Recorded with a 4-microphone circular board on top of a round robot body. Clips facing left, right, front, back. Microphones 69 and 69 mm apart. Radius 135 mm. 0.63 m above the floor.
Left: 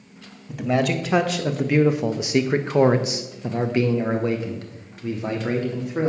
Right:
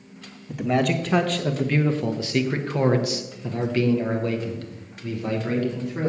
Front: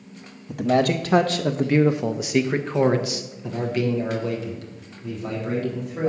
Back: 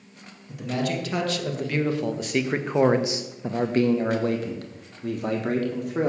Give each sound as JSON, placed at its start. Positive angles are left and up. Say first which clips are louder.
{"t": 0.5, "sound": "a man speaking", "louder": "even, front 8 dB", "azimuth_deg": 0, "distance_m": 1.3}